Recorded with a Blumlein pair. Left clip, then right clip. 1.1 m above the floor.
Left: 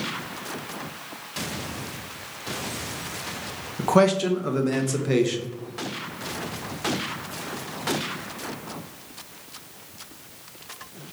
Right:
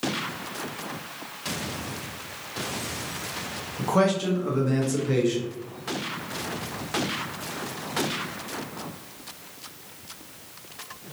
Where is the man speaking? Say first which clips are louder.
Left 4 dB; 20° left, 1.0 m.